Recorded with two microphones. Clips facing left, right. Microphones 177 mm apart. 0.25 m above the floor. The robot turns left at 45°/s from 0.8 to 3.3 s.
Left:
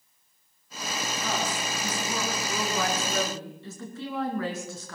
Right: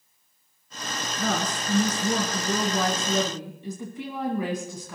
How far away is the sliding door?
I don't hear a sliding door.